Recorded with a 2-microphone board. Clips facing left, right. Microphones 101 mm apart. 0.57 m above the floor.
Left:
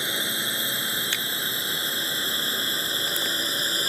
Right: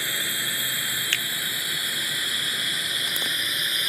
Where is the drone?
20° left (ahead or behind); by 3.9 s 30° left (ahead or behind).